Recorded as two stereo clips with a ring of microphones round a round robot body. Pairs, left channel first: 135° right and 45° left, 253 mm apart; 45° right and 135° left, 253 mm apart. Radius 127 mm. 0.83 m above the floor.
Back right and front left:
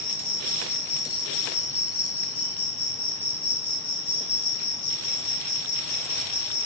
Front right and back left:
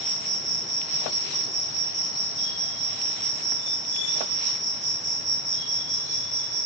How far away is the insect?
About 2.5 m.